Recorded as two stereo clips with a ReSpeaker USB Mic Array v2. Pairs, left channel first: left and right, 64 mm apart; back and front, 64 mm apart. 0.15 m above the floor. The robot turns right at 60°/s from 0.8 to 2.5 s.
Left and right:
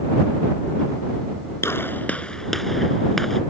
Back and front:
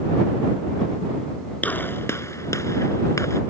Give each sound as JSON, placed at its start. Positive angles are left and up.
{"t": 1.6, "sound": "a gunshot", "azimuth_deg": 120}